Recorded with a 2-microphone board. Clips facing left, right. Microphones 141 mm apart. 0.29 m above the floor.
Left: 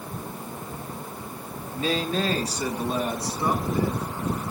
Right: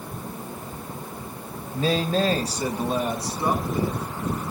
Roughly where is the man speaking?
Right.